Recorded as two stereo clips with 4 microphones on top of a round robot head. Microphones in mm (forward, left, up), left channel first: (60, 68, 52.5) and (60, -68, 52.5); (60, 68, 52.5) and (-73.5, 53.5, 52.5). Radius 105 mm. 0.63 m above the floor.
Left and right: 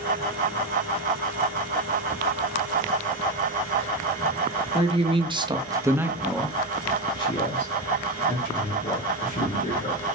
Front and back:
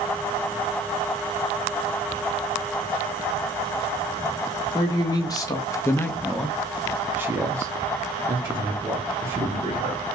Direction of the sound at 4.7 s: 50° right.